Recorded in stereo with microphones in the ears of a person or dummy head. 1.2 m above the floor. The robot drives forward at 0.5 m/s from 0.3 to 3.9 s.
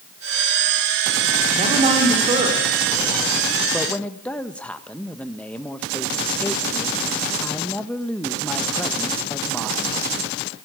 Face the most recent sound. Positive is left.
turn(degrees=5)  # may be behind; listen again after turning